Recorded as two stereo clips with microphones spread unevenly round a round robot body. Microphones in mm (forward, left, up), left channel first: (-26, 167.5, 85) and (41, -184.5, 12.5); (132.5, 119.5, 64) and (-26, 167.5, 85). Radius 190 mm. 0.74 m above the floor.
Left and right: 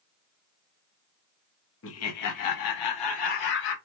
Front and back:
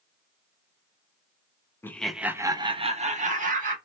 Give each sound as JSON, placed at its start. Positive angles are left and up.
{"t": 1.8, "sound": "laughter", "azimuth_deg": 45, "distance_m": 0.9}